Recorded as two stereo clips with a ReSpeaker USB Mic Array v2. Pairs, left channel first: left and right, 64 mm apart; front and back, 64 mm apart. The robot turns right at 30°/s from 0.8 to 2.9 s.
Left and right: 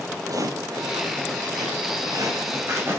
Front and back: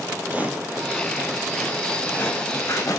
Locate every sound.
0.2 s footsteps: 115° right, 4.5 m; by 3.0 s 35° right, 7.5 m